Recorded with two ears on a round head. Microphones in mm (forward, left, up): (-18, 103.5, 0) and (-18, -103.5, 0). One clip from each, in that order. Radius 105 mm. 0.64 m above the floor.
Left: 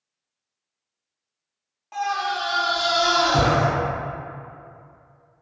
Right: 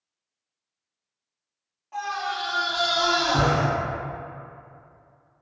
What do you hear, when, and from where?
1.9 s a scream: 45° left (ahead or behind), 1.2 m; by 3.7 s 10° right (ahead or behind), 1.1 m